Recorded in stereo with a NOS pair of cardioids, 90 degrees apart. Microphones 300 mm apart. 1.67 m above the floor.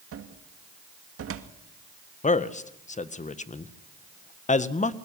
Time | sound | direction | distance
0.1 | a cupboard door | 50° right | 2 m
2.2 | a man speaking | 25° left | 1.7 m